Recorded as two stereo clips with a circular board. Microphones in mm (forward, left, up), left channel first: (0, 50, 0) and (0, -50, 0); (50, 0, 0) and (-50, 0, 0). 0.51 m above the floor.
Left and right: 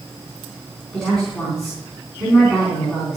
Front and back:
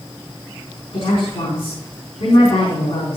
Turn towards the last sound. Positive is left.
turn(degrees=5)